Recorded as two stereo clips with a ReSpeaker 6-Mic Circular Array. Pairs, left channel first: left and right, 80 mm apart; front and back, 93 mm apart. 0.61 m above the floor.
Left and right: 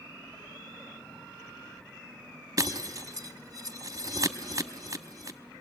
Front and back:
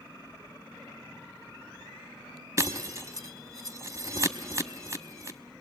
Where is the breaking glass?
130° right, 0.8 m.